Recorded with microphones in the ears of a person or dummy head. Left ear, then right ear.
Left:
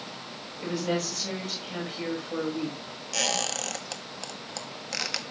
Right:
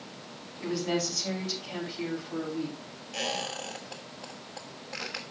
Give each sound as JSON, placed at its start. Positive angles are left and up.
{"t": 0.6, "sound": "a woman speaking", "side_deg": 25, "distance_m": 6.5}
{"t": 3.1, "sound": "a squeak", "side_deg": 75, "distance_m": 1.4}